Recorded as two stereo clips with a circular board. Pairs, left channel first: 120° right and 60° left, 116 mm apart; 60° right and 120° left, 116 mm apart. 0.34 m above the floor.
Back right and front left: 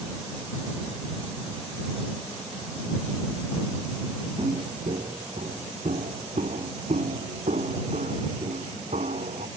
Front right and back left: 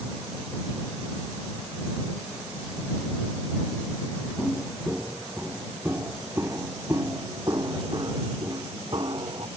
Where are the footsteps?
35° left; by 9.5 s 70° left.